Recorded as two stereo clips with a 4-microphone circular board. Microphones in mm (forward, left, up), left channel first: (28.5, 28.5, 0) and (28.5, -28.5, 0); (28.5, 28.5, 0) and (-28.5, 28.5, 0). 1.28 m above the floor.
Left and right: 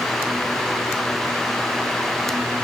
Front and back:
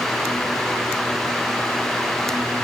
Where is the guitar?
No guitar in this recording.